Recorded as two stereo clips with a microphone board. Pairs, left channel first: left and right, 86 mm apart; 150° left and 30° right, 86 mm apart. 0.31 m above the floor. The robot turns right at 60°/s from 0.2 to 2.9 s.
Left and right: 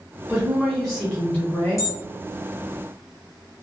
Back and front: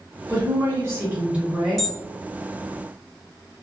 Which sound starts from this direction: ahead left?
An alarm, at 1.8 s.